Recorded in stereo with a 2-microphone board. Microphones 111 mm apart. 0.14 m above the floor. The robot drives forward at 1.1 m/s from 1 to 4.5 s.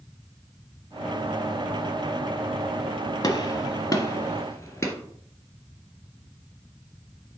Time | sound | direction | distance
3.2 | a gunshot | 35° left (ahead or behind) | 1.4 m